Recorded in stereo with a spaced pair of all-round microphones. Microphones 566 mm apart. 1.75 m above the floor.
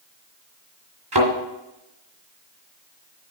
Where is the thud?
45° right (ahead or behind), 2.5 m.